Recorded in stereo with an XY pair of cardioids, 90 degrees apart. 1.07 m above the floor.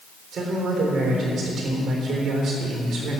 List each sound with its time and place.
0.3 s a man speaking: 65° right, 3.5 m